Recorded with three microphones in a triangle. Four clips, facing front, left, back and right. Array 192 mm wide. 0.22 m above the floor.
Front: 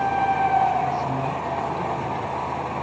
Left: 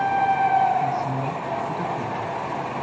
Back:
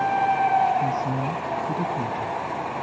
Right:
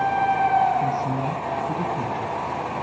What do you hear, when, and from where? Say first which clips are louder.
0.8 s a woman speaking: even, front 1 dB; 145° right, 1.8 m